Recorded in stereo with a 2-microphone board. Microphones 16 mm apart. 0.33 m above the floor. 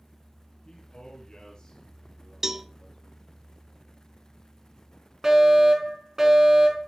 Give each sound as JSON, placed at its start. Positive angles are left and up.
{"t": 0.7, "sound": "a man speaking", "side_deg": 60, "distance_m": 5.5}
{"t": 2.4, "sound": "a cowbell", "side_deg": -20, "distance_m": 1.0}
{"t": 5.2, "sound": "a fire alarm", "side_deg": -35, "distance_m": 5.5}